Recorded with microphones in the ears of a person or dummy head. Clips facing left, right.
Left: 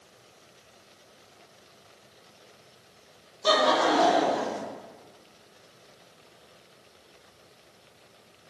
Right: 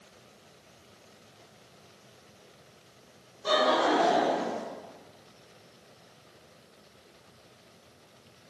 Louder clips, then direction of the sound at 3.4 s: Left 2 dB; 80° left.